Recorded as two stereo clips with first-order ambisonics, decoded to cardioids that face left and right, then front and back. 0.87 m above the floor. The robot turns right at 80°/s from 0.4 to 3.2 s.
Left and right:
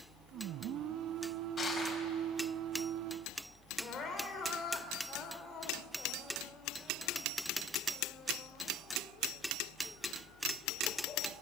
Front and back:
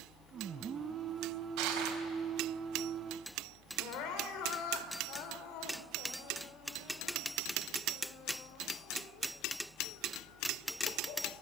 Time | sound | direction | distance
1.6 | crushing | 160° left | 4 m
3.8 | crying | 30° left | 2.5 m